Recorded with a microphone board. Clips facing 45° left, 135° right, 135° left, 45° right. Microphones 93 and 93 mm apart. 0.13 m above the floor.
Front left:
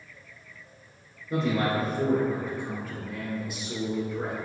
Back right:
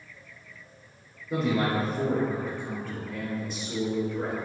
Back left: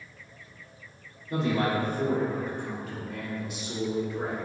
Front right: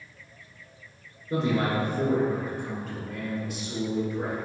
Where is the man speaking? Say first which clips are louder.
Even, front right 1 dB; 55° right, 1.3 m; by 4.3 s 115° left, 1.5 m.